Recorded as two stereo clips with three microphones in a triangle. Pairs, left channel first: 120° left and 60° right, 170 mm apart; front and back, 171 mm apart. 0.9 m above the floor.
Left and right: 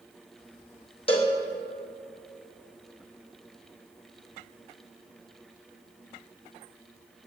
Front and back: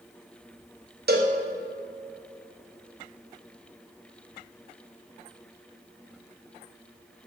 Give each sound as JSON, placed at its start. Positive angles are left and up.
{"t": 1.1, "sound": "a cowbell", "azimuth_deg": 170, "distance_m": 0.9}